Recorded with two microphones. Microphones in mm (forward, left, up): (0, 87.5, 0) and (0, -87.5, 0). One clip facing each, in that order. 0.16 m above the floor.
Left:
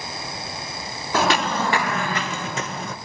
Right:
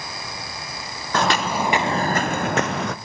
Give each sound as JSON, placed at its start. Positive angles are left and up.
{"t": 1.1, "sound": "footsteps", "side_deg": 5, "distance_m": 1.6}